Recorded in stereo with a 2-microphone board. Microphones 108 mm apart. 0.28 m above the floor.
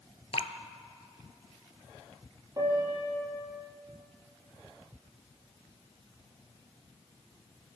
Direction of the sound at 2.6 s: 30° right (ahead or behind).